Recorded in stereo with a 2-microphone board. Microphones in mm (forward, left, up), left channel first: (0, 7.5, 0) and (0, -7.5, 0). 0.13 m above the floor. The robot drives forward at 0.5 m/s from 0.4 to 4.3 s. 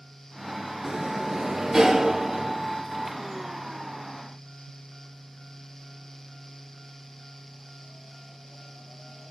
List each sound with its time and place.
0.8 s a sliding door: 55° right (ahead or behind), 0.5 m; by 2.6 s 25° right (ahead or behind), 1.1 m